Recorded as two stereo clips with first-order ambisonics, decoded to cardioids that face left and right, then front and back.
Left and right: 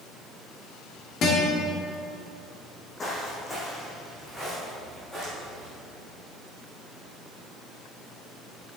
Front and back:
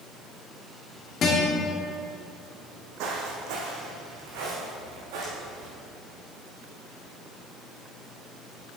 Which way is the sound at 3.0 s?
160° left.